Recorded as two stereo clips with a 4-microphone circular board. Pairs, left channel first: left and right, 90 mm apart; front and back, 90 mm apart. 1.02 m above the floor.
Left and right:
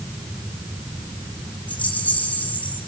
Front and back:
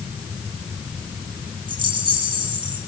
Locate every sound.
1.7 s a rattle: 160° left, 4.5 m